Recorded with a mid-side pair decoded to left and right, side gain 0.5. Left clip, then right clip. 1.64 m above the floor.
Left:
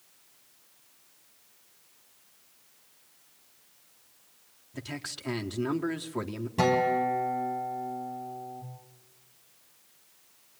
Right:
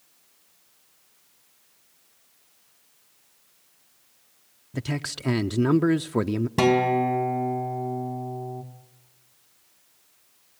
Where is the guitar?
60° right, 3.5 m.